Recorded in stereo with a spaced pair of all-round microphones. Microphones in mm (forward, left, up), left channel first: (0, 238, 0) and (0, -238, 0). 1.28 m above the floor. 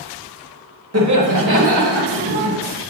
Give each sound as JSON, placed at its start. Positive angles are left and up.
{"t": 0.9, "sound": "laughter", "side_deg": -30, "distance_m": 1.1}